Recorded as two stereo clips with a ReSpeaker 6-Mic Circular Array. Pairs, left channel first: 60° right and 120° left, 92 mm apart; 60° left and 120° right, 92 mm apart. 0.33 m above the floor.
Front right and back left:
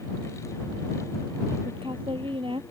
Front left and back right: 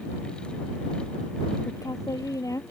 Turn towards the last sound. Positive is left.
turn(degrees=110)